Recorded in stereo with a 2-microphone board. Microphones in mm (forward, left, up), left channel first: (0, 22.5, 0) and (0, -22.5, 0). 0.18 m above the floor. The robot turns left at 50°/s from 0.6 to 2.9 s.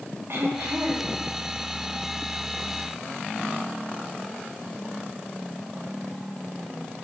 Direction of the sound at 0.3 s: 55° right (ahead or behind).